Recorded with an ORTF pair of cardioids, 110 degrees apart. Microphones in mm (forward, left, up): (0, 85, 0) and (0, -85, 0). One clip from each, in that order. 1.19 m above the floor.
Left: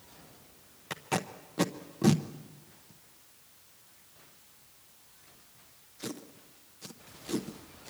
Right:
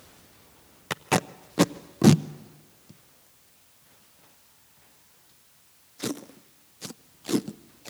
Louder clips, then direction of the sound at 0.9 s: Right 7 dB; 35° right.